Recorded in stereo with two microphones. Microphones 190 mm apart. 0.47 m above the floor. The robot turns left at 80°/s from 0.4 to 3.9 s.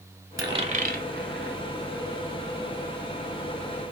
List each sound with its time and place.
0.4 s a dropped coin: 20° right (ahead or behind), 0.9 m; by 1.6 s 60° right (ahead or behind), 0.9 m